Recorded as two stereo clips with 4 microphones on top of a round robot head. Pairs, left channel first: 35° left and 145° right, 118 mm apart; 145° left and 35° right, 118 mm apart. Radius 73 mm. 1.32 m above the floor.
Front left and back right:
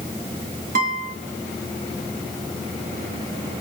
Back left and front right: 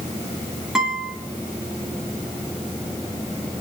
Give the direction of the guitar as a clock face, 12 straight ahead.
4 o'clock.